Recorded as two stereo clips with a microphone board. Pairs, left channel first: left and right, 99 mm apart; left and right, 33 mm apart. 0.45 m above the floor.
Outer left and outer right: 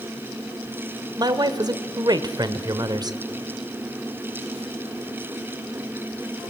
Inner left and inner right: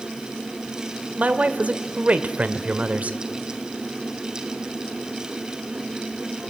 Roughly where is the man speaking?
Right.